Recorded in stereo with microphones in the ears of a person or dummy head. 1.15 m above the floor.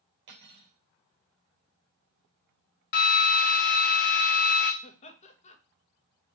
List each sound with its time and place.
0.3 s cutlery clinking: 60° right (ahead or behind), 3 m
2.9 s a drill: 50° left (ahead or behind), 0.7 m
4.8 s laughter: 40° left (ahead or behind), 1.5 m